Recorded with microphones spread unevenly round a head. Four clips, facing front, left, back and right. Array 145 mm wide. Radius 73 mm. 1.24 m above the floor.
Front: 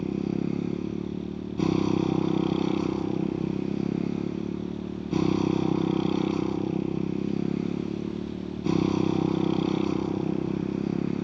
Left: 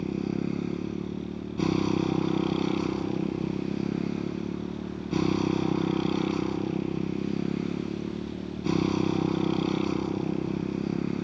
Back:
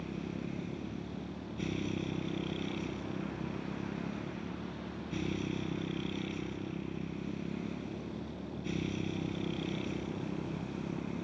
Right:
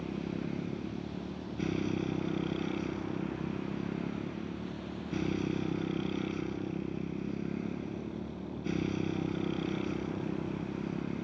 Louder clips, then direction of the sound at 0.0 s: Left 7 dB, front 12 dB; 25° left.